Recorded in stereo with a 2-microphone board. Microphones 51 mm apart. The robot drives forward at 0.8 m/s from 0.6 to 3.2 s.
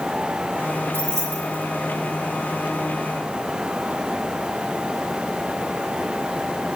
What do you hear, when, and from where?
0.9 s keys jangling: 55° right (ahead or behind), 5 m; by 1.6 s 60° right (ahead or behind), 5 m